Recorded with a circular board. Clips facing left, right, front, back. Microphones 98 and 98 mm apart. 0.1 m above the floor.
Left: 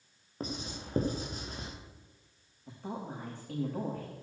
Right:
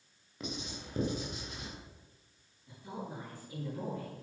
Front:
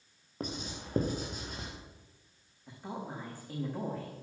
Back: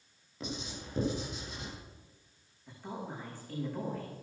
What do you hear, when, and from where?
0.4 s writing: 40° left, 4.5 m
2.7 s a woman speaking: 75° left, 7 m